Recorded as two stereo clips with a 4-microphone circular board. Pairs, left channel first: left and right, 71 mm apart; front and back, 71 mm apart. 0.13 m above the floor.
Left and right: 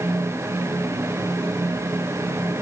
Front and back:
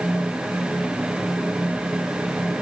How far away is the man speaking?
No man speaking in this recording.